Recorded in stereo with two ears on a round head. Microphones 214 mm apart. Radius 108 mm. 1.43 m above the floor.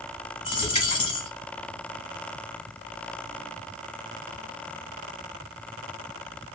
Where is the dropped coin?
25° left (ahead or behind), 1.4 m.